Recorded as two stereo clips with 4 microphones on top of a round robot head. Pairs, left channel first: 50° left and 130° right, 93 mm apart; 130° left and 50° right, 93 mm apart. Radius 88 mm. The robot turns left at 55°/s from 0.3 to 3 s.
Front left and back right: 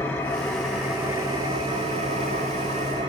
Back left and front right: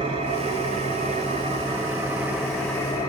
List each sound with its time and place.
0.0 s an engine running: 20° right, 1.0 m; by 3.1 s 165° right, 1.0 m